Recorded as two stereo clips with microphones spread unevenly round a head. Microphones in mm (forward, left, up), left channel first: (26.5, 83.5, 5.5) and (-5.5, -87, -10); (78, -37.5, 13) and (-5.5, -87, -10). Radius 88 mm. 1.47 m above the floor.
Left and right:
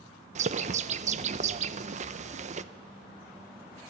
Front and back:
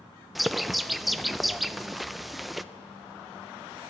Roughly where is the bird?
Ahead right.